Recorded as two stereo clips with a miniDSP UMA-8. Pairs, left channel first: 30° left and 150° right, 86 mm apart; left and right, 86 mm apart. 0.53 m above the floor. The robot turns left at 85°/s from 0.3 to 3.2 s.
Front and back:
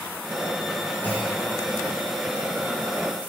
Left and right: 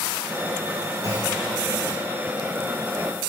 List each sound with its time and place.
1.0 s a clunk: 35° right, 6.5 m; by 1.4 s 70° right, 6.5 m